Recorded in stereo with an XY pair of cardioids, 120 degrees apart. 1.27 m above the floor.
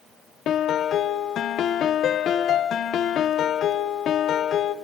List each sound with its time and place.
0.5 s a piano: 55° left, 0.6 m